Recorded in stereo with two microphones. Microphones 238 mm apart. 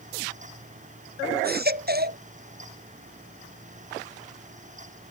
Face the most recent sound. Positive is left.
turn(degrees=-40)  # may be behind; listen again after turning